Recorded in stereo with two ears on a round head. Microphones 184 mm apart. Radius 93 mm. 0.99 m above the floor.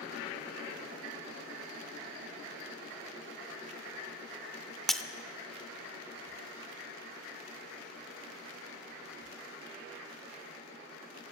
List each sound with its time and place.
4.9 s breaking glass: centre (ahead or behind), 0.6 m